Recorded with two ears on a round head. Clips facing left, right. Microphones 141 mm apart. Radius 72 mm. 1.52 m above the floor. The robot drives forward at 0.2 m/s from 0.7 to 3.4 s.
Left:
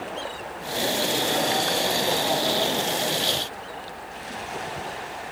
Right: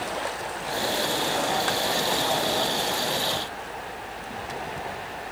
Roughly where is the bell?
No bell in this recording.